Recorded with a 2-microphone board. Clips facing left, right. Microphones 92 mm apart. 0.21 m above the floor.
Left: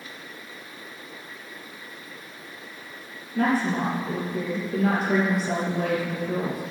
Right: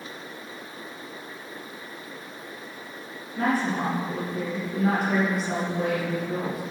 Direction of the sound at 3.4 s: 70° left (ahead or behind).